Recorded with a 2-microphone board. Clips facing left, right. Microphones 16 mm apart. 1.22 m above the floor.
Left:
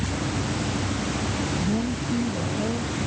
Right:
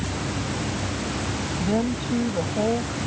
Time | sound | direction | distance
1.6 | a woman speaking | 85° right | ?